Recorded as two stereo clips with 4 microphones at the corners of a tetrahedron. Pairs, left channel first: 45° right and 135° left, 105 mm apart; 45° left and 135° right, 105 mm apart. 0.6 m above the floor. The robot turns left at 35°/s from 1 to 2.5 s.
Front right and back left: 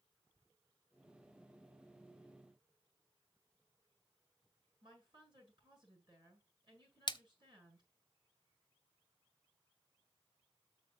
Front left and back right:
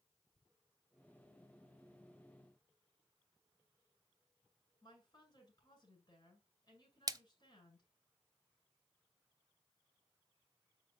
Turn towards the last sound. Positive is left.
turn(degrees=-85)